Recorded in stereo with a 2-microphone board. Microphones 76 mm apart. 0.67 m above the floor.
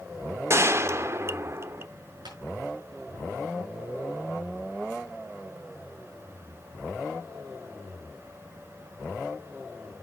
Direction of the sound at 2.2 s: 80° right.